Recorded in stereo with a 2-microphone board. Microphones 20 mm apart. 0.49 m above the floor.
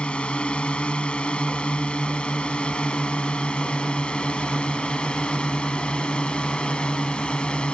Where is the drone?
55° left (ahead or behind); by 7.8 s 50° left (ahead or behind).